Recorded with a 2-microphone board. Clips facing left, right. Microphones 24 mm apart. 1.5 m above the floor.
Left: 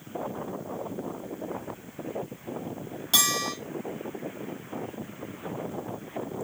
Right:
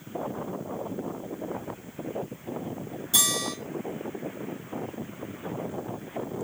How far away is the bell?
About 2.5 m.